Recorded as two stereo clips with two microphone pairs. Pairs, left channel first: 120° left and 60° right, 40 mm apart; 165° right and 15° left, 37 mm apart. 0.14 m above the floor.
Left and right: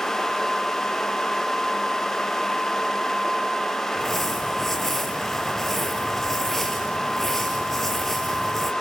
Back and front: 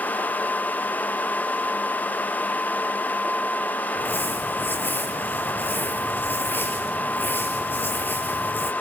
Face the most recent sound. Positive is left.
turn(degrees=-160)